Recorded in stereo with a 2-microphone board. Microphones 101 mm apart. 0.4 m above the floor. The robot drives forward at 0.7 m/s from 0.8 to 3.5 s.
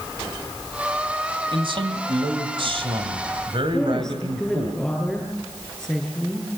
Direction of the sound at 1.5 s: 55° right (ahead or behind).